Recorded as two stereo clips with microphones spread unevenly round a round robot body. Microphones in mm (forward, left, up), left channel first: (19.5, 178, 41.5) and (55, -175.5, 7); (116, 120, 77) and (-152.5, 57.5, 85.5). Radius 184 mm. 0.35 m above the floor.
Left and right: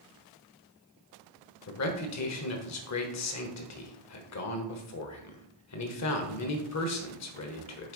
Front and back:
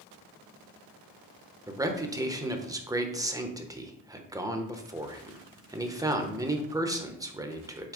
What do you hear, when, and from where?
1.7 s a man speaking: 120° left, 1.2 m